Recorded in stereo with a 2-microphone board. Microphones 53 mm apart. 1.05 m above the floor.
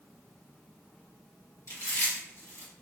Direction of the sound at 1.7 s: 75° left (ahead or behind).